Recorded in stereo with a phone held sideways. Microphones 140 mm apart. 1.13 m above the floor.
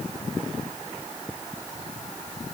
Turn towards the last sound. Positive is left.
No sound to turn to.